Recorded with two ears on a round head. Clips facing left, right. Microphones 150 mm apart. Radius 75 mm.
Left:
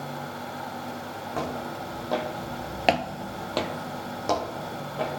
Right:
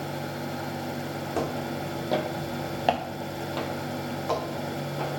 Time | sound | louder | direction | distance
1.3 | footsteps | right 2 dB | 30° right (ahead or behind) | 2.5 m